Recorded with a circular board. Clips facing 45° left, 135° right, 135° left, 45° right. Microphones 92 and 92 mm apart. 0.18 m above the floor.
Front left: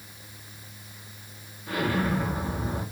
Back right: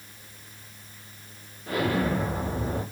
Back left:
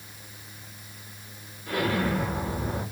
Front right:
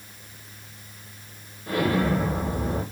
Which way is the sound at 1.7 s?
100° right.